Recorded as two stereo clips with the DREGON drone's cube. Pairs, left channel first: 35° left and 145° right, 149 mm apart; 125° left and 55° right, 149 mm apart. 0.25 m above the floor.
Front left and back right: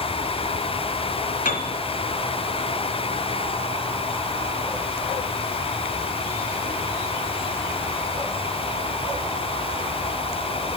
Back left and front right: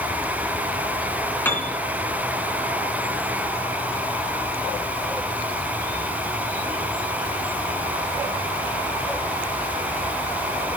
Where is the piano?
45° left, 2.5 m.